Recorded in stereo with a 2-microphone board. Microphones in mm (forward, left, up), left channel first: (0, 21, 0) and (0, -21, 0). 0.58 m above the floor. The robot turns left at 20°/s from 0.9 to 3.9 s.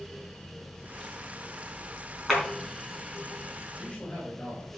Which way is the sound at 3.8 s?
15° left (ahead or behind).